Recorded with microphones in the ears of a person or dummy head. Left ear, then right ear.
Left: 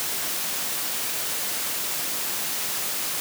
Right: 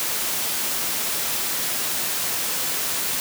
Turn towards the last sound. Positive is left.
No sound to turn to.